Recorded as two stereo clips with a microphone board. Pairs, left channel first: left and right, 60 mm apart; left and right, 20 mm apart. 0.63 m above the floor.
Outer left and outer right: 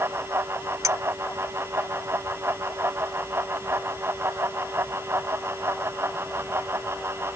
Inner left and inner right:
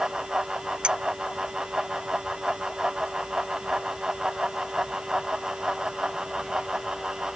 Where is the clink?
60° right (ahead or behind).